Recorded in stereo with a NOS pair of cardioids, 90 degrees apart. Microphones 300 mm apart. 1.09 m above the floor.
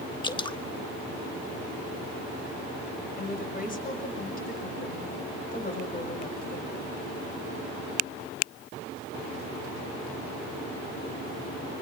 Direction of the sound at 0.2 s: 15° left.